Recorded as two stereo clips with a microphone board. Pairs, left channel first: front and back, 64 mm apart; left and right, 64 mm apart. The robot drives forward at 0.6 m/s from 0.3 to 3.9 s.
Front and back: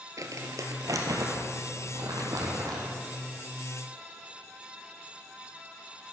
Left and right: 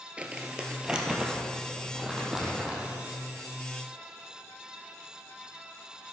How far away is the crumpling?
About 1.2 m.